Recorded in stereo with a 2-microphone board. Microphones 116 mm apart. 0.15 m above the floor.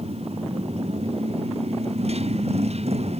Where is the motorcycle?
65° right (ahead or behind); by 3.2 s 70° right (ahead or behind).